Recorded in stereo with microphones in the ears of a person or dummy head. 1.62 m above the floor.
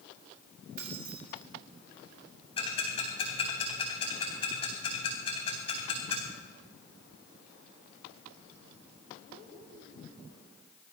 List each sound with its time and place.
0.8 s keys jangling: 45° right (ahead or behind), 1.8 m
2.6 s ticking: 30° left (ahead or behind), 3.5 m